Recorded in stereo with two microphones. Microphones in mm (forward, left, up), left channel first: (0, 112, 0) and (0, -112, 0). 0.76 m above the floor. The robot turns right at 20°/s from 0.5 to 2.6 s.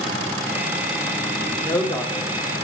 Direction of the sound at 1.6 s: 10° left (ahead or behind).